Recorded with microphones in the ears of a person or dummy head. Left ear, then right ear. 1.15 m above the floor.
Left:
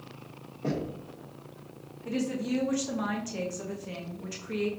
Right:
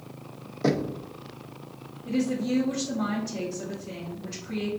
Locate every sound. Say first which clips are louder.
0.6 s knocking: right 7 dB; 60° right (ahead or behind), 0.5 m
2.0 s a woman speaking: right 4 dB; 55° left (ahead or behind), 0.6 m